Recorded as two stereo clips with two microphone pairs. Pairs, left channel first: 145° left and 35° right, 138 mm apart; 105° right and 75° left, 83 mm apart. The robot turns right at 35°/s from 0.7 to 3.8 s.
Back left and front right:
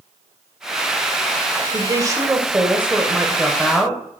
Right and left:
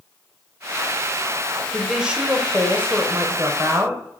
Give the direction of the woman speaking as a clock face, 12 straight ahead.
12 o'clock.